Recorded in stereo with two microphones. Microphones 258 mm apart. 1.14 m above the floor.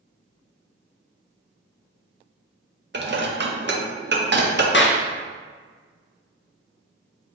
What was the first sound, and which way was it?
Dishes clattering, 45° right (ahead or behind).